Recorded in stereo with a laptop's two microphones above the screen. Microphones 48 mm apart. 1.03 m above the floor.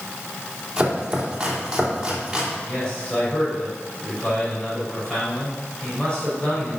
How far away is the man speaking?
About 4 m.